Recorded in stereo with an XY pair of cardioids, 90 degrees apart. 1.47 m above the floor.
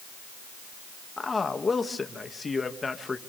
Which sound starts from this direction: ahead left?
A man speaking, at 1.2 s.